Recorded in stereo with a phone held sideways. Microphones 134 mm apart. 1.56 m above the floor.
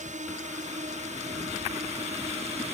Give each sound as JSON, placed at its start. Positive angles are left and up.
{"t": 0.0, "sound": "a drone", "side_deg": -65}